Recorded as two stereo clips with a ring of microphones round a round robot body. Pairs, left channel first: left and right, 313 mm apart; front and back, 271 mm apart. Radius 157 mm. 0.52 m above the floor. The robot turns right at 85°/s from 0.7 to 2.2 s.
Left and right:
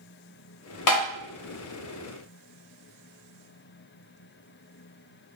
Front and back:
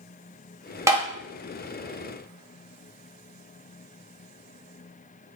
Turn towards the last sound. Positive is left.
turn(degrees=-145)